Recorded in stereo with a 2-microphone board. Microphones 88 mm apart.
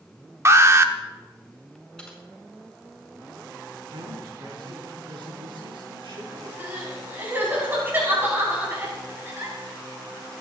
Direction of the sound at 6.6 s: 25° right (ahead or behind).